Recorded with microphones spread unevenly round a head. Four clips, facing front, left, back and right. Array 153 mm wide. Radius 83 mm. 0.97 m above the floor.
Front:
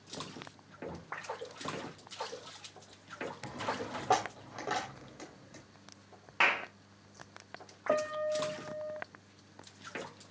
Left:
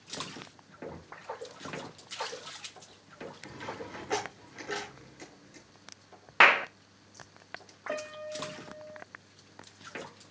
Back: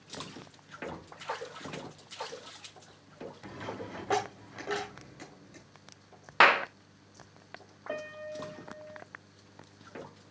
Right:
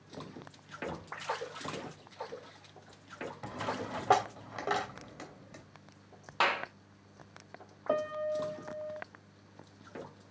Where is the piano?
35° right, 0.5 m.